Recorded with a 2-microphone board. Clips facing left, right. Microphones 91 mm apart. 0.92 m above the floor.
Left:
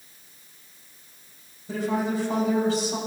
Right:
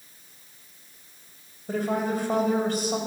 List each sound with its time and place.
1.7 s a woman speaking: 55° right (ahead or behind), 3.5 m